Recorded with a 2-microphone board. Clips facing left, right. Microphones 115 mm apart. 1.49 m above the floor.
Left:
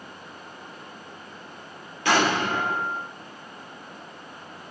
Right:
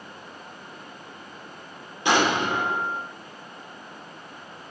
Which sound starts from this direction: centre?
An explosion, at 2.0 s.